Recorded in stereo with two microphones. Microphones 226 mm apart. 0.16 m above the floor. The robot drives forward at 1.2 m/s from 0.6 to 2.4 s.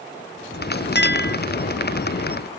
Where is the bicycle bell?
No bicycle bell in this recording.